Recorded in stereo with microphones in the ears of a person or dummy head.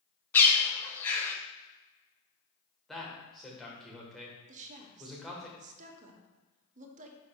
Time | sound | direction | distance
0.3 | a bird | 10° left (ahead or behind) | 0.7 m
2.9 | a man speaking | centre (ahead or behind) | 1.4 m
4.5 | a woman speaking | 40° right (ahead or behind) | 1.0 m